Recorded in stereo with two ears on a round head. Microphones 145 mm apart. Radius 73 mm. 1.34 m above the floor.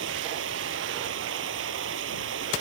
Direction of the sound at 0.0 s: 85° right.